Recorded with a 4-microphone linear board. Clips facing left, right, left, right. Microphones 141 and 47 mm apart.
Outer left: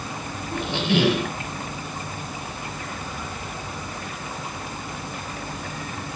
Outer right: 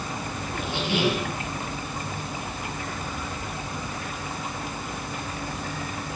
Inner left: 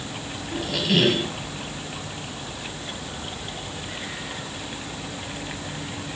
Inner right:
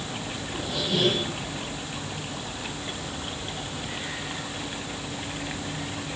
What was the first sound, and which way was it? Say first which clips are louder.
A squeak: outer left 5 dB, inner left 6 dB; 65° left (ahead or behind).